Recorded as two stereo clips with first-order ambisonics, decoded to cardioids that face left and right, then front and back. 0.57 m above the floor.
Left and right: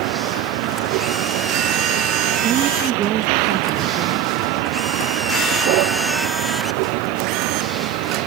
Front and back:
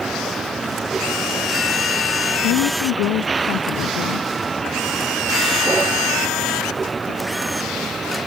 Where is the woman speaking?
35° right.